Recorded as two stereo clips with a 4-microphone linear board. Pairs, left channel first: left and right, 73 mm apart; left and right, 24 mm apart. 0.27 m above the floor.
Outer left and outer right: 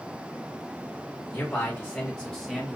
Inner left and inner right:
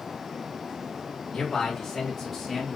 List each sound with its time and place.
1.3 s a man speaking: 30° left (ahead or behind), 1.7 m; by 2.8 s 5° right (ahead or behind), 1.4 m